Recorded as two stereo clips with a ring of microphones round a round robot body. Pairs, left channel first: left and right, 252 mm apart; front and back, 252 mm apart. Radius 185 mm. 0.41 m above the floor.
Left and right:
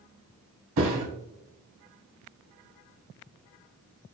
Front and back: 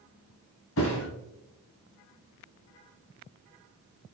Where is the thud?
55° right, 1.0 m.